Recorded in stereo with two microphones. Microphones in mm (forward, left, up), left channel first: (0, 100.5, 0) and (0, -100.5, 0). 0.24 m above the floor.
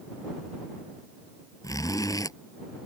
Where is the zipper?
15° left (ahead or behind).